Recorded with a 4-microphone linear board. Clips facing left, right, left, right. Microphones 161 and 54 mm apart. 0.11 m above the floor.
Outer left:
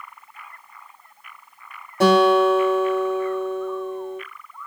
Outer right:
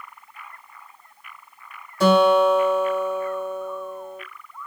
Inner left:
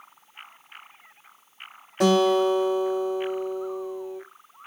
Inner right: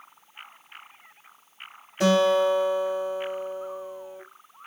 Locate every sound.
2.0 s a guitar: 65° left (ahead or behind), 2.5 m